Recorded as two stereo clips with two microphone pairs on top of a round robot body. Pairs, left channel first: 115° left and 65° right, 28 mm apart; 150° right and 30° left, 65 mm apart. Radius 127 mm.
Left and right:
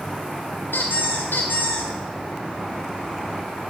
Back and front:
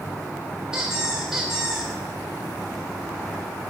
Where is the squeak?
115° left, 1.7 m.